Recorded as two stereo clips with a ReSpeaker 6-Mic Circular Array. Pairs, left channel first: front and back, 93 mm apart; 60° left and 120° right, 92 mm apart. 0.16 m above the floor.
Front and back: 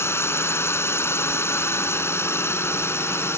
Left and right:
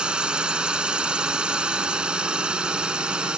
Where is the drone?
45° right.